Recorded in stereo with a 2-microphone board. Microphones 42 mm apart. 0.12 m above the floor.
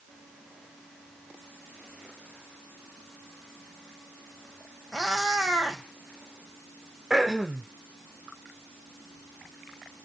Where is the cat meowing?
5° left (ahead or behind), 3.5 m.